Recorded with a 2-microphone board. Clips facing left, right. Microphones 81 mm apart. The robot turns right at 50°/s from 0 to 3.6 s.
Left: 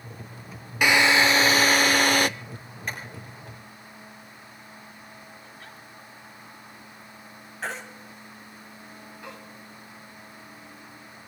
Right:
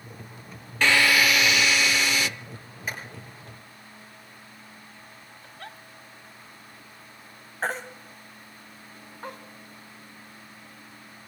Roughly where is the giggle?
Right.